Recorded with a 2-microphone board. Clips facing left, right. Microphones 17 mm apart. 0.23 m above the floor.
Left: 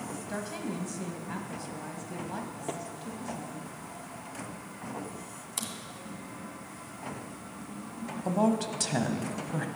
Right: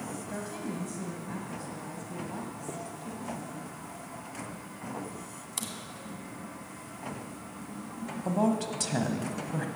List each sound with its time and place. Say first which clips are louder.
0.3 s a woman speaking: left 3 dB; 25° left (ahead or behind), 1.5 m
2.7 s tapping: left 5 dB; 45° left (ahead or behind), 1.6 m
5.6 s a crack: left 1 dB; 5° left (ahead or behind), 2.0 m
8.2 s a woman speaking: left 1 dB; 10° left (ahead or behind), 1.1 m